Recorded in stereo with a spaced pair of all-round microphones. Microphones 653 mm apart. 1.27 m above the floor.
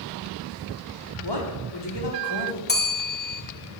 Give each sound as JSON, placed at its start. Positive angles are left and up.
{"t": 1.2, "sound": "a man speaking", "side_deg": 40, "distance_m": 1.4}
{"t": 2.7, "sound": "a bell", "side_deg": 15, "distance_m": 0.9}